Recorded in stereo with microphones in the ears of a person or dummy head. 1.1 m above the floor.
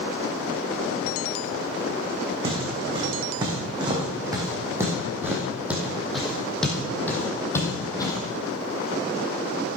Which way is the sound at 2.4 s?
35° right (ahead or behind).